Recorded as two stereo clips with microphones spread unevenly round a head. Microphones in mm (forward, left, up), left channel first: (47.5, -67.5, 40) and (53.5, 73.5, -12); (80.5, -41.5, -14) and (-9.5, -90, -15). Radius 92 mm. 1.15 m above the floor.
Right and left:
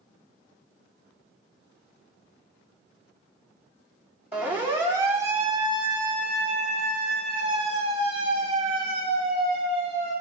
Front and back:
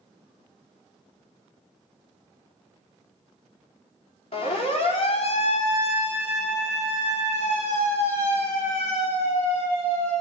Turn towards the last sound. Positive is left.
turn(degrees=45)